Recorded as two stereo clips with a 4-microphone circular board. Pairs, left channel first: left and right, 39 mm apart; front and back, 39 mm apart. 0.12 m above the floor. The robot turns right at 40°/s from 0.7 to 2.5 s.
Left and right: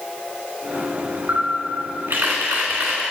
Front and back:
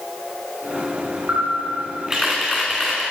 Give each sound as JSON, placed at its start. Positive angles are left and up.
{"t": 1.3, "sound": "a camera shutter", "azimuth_deg": -135, "distance_m": 1.8}